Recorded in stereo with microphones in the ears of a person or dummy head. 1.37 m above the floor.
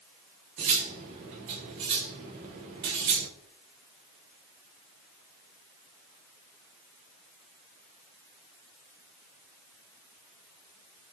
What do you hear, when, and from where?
0.6 s cutlery clinking: 25° right (ahead or behind), 0.5 m